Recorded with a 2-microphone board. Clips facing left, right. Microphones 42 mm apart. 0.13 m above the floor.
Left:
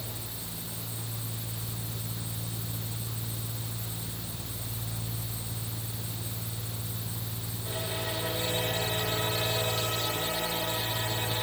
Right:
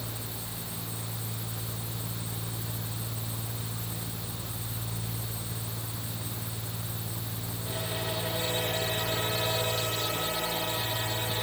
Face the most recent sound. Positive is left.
No sound to turn to.